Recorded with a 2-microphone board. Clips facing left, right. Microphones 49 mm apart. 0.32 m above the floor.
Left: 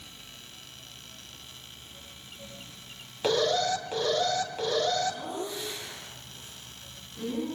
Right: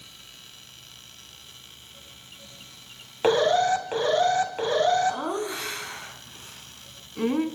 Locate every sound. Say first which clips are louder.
3.2 s an alarm: right 6 dB; 30° right (ahead or behind), 3 m
5.1 s laughter: right 6 dB; 70° right (ahead or behind), 3.5 m